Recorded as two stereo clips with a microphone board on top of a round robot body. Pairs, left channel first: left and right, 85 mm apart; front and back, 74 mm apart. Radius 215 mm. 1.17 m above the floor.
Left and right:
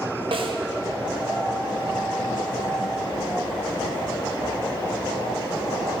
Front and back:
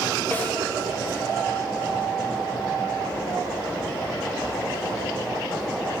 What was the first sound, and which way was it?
A snare drum, 70° right.